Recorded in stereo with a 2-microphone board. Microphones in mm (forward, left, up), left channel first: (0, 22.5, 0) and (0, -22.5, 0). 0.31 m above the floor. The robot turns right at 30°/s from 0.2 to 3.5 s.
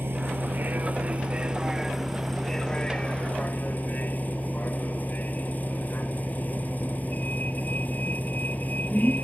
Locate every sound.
0.0 s a vehicle: 60° right; by 9.2 s 40° left